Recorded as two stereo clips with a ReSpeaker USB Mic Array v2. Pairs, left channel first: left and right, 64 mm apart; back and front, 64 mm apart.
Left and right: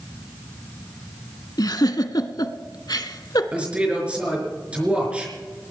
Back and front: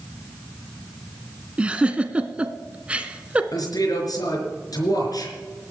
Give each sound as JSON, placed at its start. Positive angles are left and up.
{"t": 1.6, "sound": "a giggle", "azimuth_deg": 70, "distance_m": 0.9}
{"t": 3.5, "sound": "a man speaking", "azimuth_deg": -165, "distance_m": 4.0}